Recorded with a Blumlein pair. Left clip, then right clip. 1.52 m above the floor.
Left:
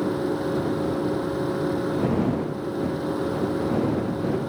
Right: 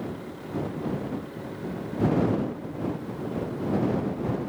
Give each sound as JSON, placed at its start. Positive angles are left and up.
{"t": 0.0, "sound": "a machine running", "azimuth_deg": 55}